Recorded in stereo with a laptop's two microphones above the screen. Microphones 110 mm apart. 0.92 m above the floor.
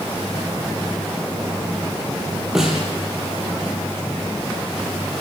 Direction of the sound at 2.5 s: 5° right (ahead or behind).